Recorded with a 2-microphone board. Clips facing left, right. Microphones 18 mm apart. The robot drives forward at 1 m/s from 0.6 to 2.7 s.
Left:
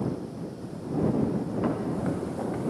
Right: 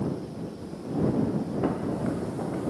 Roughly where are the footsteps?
Centre.